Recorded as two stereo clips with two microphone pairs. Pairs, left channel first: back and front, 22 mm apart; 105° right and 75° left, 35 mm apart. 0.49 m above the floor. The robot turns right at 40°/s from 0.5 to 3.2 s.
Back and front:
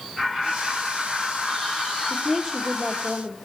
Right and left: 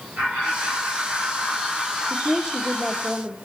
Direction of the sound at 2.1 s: 65° left.